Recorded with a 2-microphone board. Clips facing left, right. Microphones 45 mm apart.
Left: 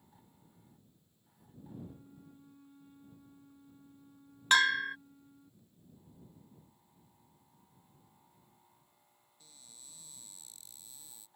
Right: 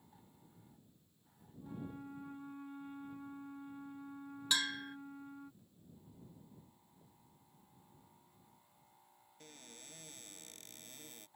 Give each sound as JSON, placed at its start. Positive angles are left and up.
{"t": 1.6, "sound": "a flute", "side_deg": -50}
{"t": 4.5, "sound": "a bell", "side_deg": 50}
{"t": 7.0, "sound": "knocking", "side_deg": -70}
{"t": 9.4, "sound": "a cupboard door", "side_deg": -55}